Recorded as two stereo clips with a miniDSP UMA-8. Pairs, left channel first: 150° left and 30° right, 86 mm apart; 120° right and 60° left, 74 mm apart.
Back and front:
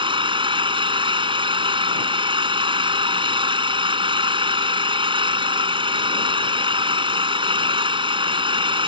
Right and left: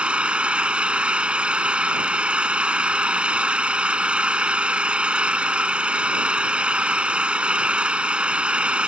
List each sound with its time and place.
0.0 s an engine running: 15° right